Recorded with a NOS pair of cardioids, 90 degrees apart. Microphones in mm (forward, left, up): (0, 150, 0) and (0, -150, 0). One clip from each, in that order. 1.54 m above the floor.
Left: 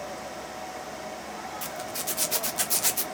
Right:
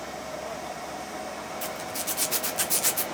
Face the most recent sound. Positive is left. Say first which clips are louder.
# right 1 dB
turn(degrees=5)